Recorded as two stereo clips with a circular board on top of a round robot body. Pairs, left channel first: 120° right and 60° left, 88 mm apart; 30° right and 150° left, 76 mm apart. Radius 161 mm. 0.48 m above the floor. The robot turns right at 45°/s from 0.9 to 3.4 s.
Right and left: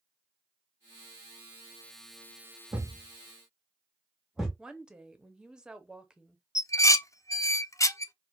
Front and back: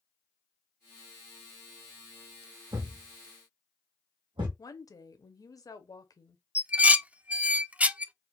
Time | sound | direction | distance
2.7 | a thud | 115° left | 1.3 m
4.6 | a woman speaking | 20° right | 0.9 m
6.5 | dishes clattering | 145° right | 0.5 m